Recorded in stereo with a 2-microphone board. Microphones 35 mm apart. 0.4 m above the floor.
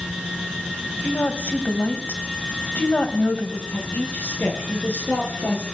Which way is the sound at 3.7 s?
80° left.